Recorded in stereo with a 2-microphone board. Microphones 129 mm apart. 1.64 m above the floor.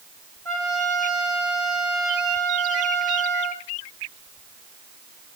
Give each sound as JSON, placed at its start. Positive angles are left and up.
{"t": 0.5, "sound": "a trumpet", "side_deg": 25, "distance_m": 5.0}